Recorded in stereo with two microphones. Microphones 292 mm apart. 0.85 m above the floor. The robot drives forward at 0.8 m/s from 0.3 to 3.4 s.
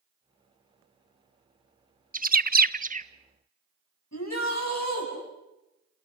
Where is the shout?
65° left (ahead or behind), 7.5 m.